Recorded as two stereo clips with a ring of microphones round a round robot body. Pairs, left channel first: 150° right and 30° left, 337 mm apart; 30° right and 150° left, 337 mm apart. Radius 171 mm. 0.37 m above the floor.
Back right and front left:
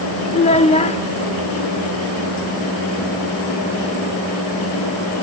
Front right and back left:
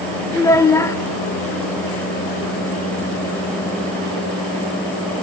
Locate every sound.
0.3 s a child speaking: 100° right, 0.6 m